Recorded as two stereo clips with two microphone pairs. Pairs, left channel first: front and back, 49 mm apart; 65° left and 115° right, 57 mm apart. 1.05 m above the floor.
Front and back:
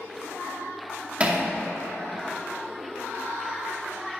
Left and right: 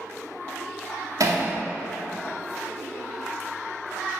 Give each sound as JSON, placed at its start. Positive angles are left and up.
{"t": 1.2, "sound": "hammering", "azimuth_deg": -120, "distance_m": 2.0}